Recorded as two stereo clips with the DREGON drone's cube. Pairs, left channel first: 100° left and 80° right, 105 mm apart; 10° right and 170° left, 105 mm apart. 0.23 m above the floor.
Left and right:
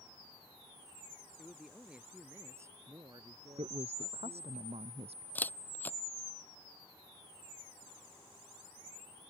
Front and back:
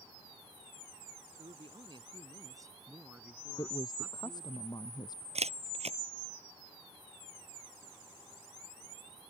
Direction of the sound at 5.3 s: 175° left.